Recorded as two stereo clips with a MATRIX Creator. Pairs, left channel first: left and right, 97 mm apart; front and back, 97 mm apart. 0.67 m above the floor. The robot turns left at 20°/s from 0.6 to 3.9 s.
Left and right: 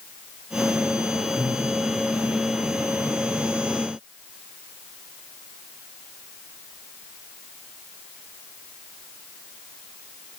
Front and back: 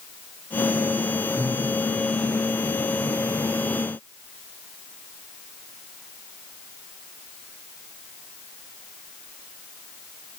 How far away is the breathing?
About 4 m.